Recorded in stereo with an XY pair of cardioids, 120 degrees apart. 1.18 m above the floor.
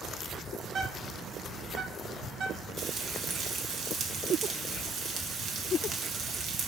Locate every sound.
0.7 s a bird: 50° right, 1.8 m
2.8 s frying: 50° right, 1.6 m